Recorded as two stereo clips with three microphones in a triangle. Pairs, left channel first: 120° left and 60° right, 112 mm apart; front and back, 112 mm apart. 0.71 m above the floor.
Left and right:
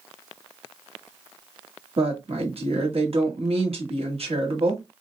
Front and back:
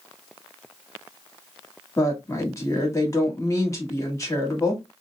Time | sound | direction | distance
2.0 | a woman speaking | 60° right | 1.2 m